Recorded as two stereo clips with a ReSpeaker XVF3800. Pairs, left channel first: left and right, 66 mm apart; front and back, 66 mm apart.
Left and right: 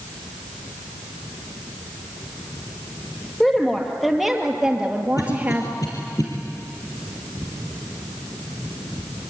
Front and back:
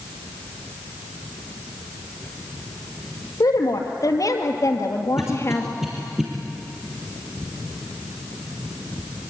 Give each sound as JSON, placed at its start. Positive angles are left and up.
{"t": 3.4, "sound": "a woman speaking", "azimuth_deg": 10, "distance_m": 3.5}
{"t": 5.2, "sound": "a cough", "azimuth_deg": 95, "distance_m": 3.5}